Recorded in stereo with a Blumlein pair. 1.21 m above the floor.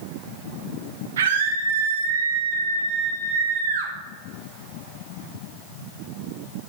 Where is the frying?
I don't hear frying.